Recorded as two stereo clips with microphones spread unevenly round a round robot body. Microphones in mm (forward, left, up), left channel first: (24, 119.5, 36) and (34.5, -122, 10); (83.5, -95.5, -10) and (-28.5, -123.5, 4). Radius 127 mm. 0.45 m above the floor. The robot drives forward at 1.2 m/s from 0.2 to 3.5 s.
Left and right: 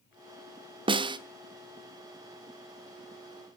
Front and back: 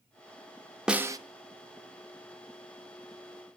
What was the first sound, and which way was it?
A snare drum, 75° right.